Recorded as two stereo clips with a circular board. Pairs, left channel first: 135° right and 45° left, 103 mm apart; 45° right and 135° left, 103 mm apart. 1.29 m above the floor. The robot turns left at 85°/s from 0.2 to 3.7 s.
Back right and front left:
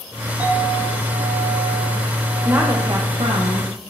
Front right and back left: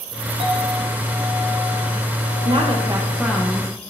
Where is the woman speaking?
125° left, 1.0 m; by 3.7 s 20° left, 1.0 m.